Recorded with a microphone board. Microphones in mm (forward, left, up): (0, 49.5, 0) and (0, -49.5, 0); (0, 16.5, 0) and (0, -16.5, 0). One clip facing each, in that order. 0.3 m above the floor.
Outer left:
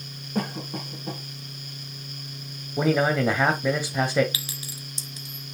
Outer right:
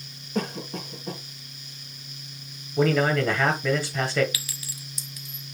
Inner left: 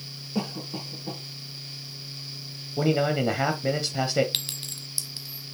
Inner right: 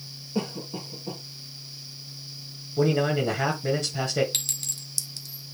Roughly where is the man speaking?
Centre.